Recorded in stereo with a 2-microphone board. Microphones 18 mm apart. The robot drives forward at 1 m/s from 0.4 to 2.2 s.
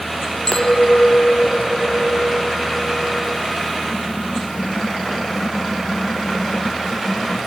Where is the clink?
35° left (ahead or behind), 1.6 m; by 3.4 s 50° left (ahead or behind), 1.2 m.